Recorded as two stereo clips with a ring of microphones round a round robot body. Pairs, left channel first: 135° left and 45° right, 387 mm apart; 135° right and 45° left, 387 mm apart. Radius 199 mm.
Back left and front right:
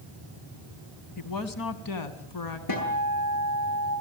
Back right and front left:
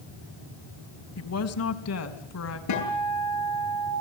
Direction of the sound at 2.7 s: 175° left.